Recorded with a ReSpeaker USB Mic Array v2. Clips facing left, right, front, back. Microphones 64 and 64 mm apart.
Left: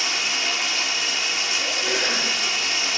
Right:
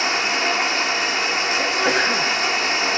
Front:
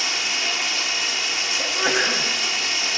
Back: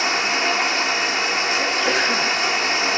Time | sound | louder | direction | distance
0.0 | running water | right 6 dB, back 6 dB | 135° right | 1.2 m
1.6 | a sneeze | right 6 dB, front 2 dB | 70° right | 4 m